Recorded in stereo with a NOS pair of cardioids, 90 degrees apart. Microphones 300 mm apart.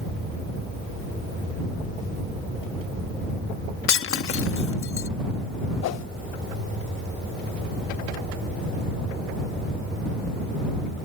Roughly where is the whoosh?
Ahead left.